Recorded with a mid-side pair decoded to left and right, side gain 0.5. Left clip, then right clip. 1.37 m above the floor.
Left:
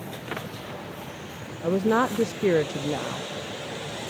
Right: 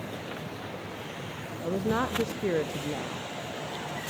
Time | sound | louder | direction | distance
1.6 | a woman speaking | left 6 dB | 40° left | 0.7 m